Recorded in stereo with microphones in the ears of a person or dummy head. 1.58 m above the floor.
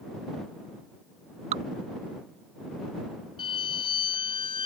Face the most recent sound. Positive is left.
turn(degrees=25)  # may be behind; listen again after turning